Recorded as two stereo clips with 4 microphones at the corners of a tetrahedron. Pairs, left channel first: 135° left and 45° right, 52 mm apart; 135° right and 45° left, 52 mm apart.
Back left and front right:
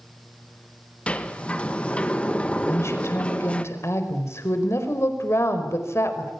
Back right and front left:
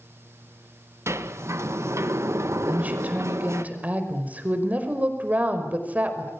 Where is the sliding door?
70° left, 1.8 m.